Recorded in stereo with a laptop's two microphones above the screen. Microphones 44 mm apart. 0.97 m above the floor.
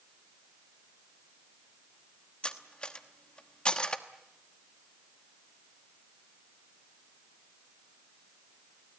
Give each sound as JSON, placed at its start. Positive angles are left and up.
{"t": 2.4, "sound": "cutlery clinking", "side_deg": 25, "distance_m": 1.0}